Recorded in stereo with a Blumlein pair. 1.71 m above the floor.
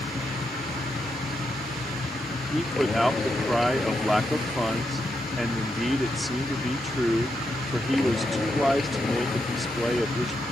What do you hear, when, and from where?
0.0 s a machine running: 15° left
2.5 s a man speaking: straight ahead